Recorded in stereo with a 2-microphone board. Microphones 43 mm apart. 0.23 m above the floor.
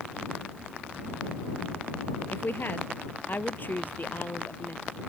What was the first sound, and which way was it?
A woman speaking, 55° left (ahead or behind).